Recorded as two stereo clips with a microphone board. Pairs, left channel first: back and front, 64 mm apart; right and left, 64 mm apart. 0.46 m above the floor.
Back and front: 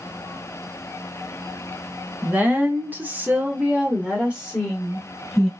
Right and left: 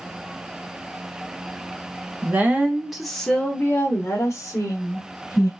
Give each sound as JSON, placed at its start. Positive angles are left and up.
{"t": 2.2, "sound": "a woman speaking", "azimuth_deg": 55, "distance_m": 0.9}